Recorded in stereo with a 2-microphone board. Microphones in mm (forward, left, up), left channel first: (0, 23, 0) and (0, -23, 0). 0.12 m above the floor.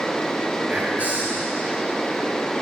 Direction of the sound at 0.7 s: 30° right (ahead or behind).